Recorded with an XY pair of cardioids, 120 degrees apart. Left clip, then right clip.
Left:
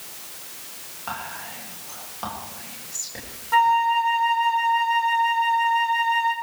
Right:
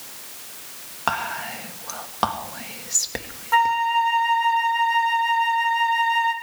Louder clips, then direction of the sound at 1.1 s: Right 8 dB; 70° right.